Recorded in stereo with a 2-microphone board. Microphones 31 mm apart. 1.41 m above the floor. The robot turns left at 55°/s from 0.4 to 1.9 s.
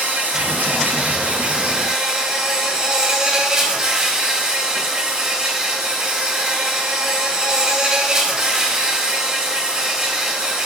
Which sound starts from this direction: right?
An insect, at 0.0 s.